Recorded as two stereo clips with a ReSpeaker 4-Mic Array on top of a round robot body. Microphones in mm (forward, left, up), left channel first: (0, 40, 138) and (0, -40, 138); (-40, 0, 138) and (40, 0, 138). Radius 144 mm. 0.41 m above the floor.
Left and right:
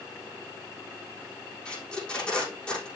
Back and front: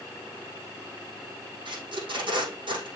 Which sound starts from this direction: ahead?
Tape being pulled, at 1.6 s.